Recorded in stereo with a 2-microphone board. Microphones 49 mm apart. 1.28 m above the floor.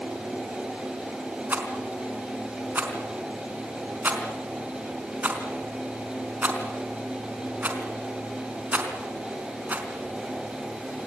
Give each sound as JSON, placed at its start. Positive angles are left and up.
{"t": 1.5, "sound": "a rattle", "side_deg": -35, "distance_m": 4.5}